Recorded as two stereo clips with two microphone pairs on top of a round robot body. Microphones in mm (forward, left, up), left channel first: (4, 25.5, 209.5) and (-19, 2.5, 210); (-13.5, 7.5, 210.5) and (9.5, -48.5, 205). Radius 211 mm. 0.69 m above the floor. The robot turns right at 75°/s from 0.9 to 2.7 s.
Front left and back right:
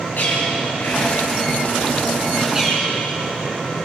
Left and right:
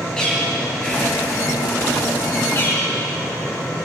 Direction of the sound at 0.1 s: 35° left.